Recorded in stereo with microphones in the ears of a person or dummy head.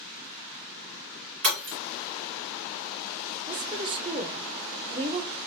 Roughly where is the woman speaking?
Right.